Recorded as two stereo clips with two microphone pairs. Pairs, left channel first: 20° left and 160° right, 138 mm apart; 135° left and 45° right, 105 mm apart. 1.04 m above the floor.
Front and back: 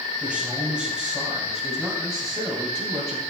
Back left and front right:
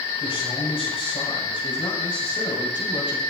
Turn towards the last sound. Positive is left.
turn(degrees=100)